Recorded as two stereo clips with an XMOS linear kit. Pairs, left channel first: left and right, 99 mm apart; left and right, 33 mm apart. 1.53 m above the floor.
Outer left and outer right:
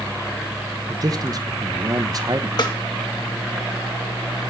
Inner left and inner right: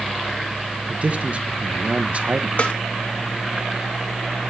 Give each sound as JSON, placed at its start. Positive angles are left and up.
{"t": 0.9, "sound": "a man speaking", "side_deg": -40, "distance_m": 1.3}
{"t": 2.6, "sound": "a snare drum", "side_deg": 45, "distance_m": 2.0}